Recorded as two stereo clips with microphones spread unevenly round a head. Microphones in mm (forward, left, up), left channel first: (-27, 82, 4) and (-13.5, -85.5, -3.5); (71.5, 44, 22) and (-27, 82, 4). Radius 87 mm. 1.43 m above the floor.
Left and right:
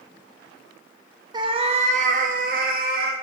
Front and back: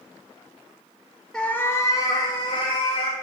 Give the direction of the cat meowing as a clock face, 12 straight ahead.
2 o'clock.